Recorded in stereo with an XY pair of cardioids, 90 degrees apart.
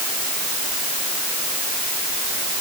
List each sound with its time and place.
Only background noise.